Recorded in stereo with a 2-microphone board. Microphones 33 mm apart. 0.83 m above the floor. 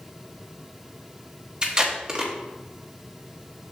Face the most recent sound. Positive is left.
turn(degrees=-25)  # may be behind; listen again after turning